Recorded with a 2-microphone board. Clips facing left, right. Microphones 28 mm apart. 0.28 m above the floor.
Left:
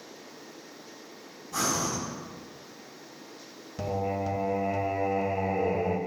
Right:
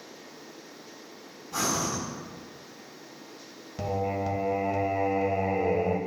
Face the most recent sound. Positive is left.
turn(degrees=-10)  # may be behind; listen again after turning